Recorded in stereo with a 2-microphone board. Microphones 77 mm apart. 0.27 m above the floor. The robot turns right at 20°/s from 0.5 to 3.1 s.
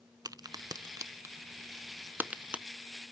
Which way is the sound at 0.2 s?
60° right (ahead or behind).